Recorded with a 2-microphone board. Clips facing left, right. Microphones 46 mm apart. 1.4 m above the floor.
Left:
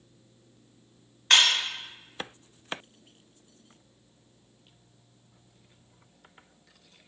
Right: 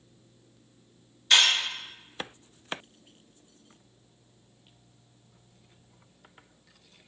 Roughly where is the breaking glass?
Left.